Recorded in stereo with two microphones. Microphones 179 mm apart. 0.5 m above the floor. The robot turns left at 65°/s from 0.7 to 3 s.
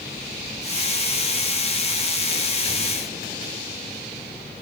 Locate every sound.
Only background noise.